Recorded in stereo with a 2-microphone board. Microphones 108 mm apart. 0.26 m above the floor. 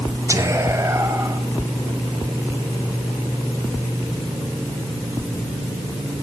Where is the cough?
I don't hear a cough.